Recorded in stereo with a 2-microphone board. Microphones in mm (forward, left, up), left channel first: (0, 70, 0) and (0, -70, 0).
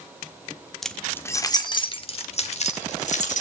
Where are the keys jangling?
Centre (ahead or behind), 1.1 m; by 3.4 s 55° left (ahead or behind), 2.5 m.